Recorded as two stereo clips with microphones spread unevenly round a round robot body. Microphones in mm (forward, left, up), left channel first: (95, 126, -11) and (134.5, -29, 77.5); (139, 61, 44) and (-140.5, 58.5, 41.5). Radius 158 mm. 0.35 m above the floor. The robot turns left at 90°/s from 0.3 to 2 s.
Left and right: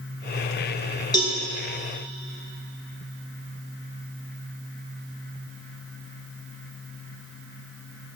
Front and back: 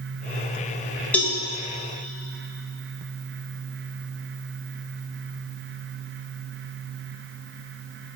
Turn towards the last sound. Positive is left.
turn(degrees=5)